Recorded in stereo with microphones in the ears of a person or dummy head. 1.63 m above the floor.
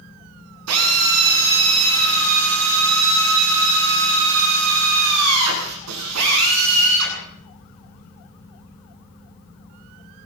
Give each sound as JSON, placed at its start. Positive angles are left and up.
{"t": 0.7, "sound": "a drill", "side_deg": -80, "distance_m": 9.0}